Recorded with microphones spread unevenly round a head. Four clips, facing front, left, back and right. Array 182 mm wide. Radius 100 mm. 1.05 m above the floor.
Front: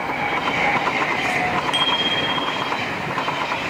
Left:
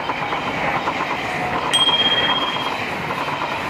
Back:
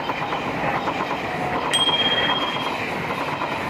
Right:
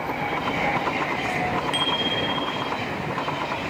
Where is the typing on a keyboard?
No typing on a keyboard in this recording.